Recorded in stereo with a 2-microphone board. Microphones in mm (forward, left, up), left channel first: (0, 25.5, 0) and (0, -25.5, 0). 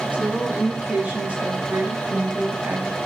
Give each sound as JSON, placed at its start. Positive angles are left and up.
{"t": 0.1, "sound": "a woman speaking", "side_deg": -25, "distance_m": 6.5}